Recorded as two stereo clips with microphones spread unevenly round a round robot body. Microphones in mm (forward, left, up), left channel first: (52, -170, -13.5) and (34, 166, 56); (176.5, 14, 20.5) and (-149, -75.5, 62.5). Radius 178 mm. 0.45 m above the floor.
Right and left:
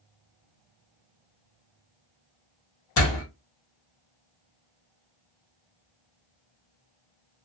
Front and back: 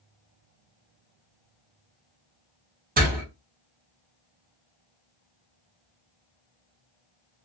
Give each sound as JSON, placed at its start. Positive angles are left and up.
{"t": 3.0, "sound": "a door slam", "azimuth_deg": -100, "distance_m": 1.1}